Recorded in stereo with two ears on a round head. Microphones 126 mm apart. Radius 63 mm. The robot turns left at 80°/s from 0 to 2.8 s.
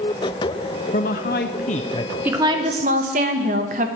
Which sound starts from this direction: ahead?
A woman speaking, at 2.2 s.